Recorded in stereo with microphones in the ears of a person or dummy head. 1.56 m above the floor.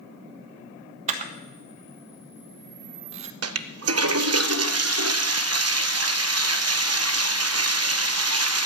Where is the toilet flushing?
75° right (ahead or behind), 0.8 m.